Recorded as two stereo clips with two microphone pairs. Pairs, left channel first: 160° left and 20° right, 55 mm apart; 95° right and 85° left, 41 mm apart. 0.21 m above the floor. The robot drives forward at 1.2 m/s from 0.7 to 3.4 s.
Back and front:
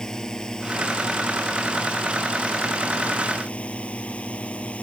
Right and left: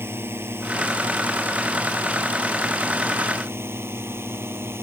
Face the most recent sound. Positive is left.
turn(degrees=95)